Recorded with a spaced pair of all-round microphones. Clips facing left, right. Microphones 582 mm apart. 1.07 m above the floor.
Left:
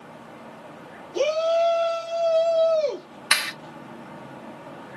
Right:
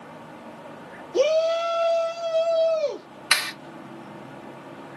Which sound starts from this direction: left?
A clap, at 3.3 s.